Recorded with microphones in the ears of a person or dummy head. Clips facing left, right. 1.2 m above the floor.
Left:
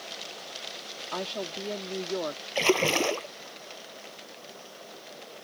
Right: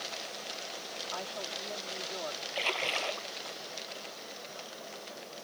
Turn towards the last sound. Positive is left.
turn(degrees=60)  # may be behind; listen again after turning